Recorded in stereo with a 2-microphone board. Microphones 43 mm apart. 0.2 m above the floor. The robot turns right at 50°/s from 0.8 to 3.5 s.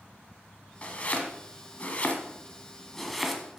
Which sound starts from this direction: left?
Chopping, at 0.8 s.